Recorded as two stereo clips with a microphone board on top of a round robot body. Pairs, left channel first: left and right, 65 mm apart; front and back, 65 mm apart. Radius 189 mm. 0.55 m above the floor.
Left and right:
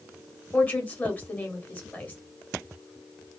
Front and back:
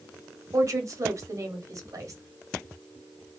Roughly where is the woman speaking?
Behind left.